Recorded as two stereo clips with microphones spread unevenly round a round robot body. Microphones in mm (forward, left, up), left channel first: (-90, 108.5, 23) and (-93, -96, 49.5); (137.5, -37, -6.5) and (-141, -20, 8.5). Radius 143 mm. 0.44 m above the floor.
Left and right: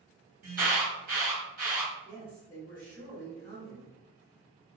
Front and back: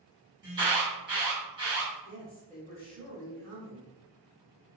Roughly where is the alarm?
Behind right.